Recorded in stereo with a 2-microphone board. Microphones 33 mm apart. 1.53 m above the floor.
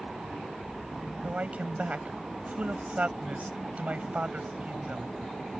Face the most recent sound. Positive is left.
turn(degrees=-45)  # may be behind; listen again after turning